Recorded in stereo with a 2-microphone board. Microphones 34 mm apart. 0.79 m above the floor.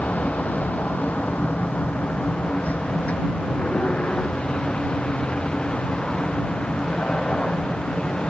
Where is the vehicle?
70° left (ahead or behind); by 8.3 s 30° left (ahead or behind).